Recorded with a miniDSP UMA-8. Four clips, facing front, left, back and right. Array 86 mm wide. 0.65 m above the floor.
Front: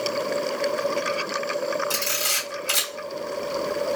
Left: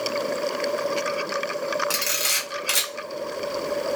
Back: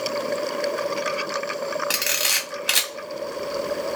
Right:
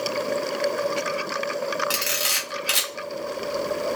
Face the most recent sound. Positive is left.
turn(degrees=-170)